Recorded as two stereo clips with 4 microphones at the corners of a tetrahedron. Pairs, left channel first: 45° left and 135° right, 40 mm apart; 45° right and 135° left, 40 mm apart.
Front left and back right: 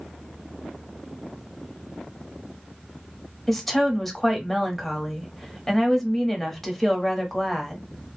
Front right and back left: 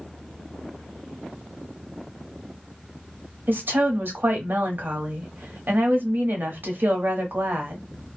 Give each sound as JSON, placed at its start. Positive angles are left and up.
{"t": 3.5, "sound": "a woman speaking", "azimuth_deg": 130, "distance_m": 0.8}